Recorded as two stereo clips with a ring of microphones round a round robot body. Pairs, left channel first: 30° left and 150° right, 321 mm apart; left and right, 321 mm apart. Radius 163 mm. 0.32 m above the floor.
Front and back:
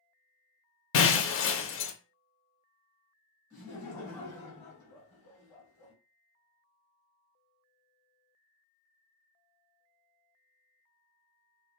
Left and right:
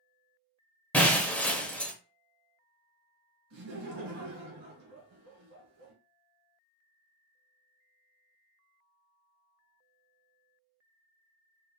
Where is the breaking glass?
5° left, 0.6 m.